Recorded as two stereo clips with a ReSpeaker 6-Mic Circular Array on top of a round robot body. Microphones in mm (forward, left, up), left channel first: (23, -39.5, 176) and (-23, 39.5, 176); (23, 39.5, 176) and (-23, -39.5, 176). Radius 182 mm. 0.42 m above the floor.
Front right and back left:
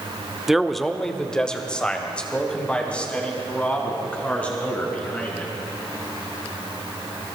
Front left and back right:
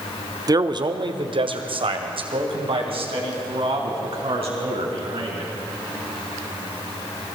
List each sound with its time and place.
0.5 s a man speaking: 155° right, 1.2 m; by 5.5 s 135° right, 7 m